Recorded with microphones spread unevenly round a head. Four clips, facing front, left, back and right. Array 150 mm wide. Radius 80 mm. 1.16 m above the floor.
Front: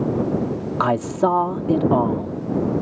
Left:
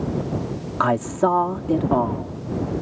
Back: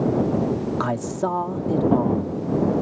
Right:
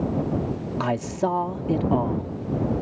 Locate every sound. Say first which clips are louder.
0.8 s a man speaking: left 6 dB, front 5 dB; 30° left